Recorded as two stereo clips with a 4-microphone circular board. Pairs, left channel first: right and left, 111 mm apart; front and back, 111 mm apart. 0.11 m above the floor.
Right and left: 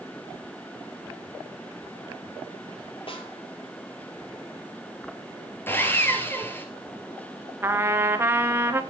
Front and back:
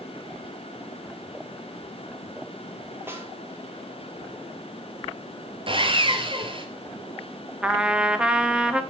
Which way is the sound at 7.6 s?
110° left.